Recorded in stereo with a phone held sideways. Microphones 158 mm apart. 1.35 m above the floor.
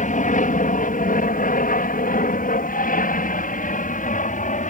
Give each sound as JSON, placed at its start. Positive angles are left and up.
{"t": 0.0, "sound": "an aircraft", "side_deg": 55}